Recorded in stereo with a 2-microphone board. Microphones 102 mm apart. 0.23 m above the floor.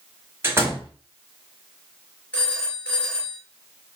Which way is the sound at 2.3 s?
15° left (ahead or behind).